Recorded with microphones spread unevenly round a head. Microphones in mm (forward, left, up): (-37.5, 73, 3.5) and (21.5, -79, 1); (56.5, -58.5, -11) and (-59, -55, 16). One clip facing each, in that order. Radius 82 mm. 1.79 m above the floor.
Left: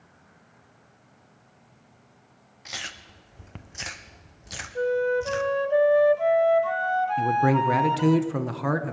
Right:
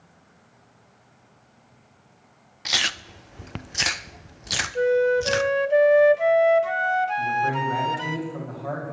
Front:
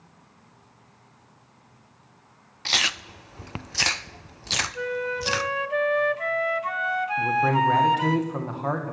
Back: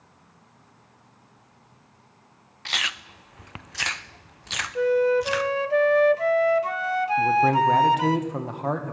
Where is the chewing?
60° right, 0.6 m.